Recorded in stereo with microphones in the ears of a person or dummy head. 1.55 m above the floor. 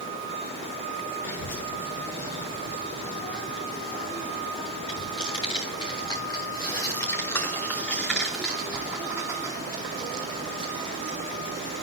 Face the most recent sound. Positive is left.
turn(degrees=-40)  # may be behind; listen again after turning